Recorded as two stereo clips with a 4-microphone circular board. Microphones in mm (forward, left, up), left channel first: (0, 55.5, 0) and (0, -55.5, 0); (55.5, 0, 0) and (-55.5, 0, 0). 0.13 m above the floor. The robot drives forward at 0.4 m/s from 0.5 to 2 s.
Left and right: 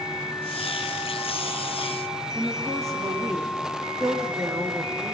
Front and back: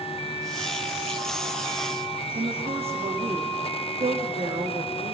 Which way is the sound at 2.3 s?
150° right.